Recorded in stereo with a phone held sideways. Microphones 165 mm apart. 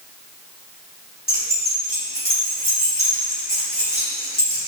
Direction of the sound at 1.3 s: 70° left (ahead or behind).